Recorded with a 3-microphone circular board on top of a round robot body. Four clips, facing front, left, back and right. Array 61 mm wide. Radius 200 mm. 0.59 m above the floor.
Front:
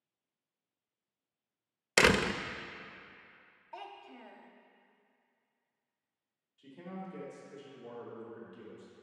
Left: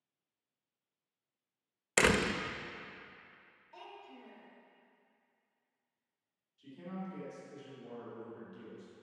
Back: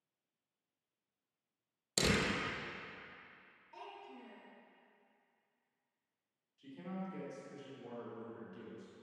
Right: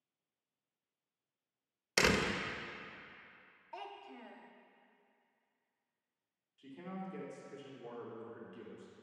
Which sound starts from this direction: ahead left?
A door slam, at 2.0 s.